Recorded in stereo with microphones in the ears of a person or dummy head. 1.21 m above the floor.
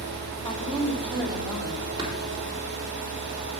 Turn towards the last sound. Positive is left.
turn(degrees=-25)  # may be behind; listen again after turning